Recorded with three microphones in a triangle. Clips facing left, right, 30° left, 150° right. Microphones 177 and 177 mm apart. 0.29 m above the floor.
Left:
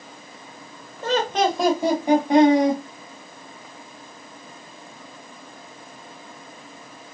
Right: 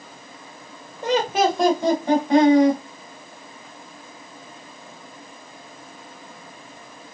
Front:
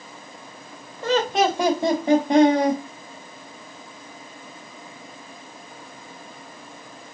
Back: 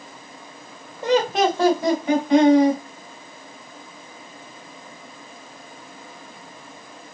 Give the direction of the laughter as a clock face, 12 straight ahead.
4 o'clock.